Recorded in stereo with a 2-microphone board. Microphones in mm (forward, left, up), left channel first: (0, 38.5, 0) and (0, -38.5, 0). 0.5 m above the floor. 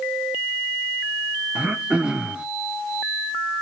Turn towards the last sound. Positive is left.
turn(degrees=-10)  # may be behind; listen again after turning